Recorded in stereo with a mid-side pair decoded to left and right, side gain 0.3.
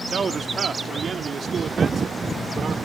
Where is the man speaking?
60° right; by 2.7 s 70° right.